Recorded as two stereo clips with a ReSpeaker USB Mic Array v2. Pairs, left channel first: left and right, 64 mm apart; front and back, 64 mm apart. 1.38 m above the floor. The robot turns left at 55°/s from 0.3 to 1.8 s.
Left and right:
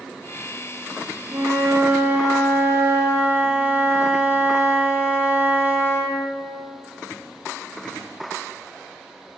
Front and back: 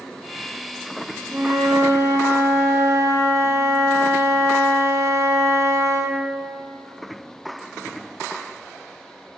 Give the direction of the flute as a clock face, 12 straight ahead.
4 o'clock.